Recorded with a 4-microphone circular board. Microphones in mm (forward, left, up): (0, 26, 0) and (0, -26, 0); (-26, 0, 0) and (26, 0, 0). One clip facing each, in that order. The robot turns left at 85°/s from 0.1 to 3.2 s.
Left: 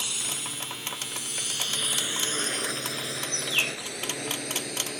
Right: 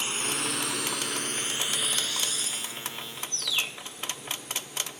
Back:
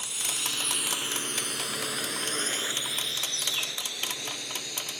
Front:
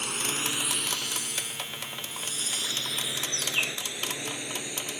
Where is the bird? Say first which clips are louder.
Left 3 dB, front 3 dB; 35° left.